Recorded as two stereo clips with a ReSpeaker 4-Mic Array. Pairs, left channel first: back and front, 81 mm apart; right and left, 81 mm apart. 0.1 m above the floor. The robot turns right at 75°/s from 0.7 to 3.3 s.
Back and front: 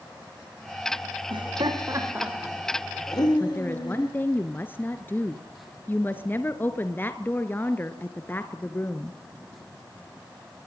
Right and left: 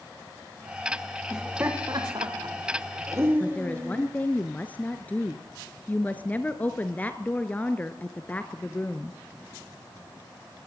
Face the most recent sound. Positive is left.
turn(degrees=-140)